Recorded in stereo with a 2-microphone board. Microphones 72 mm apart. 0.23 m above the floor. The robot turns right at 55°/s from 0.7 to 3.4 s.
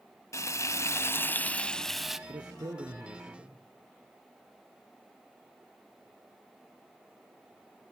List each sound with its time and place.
0.3 s frying: 105° left, 0.6 m; by 2.2 s 170° right, 0.6 m
2.3 s a man speaking: 75° right, 3.5 m; by 3.6 s 15° right, 3.5 m